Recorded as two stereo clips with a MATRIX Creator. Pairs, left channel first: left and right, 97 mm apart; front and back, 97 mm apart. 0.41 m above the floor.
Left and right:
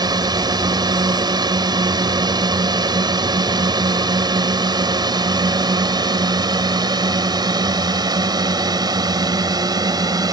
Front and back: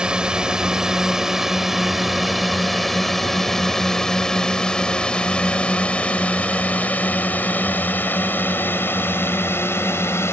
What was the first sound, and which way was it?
A drone, 100° right.